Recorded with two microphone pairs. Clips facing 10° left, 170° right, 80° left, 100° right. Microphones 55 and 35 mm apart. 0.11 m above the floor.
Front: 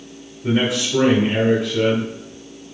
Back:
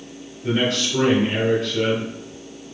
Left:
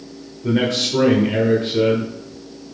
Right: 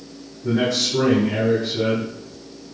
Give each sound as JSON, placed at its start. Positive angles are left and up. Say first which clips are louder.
{"t": 0.4, "sound": "a man speaking", "louder": "front 2 dB, left 2 dB", "azimuth_deg": 75, "distance_m": 2.0}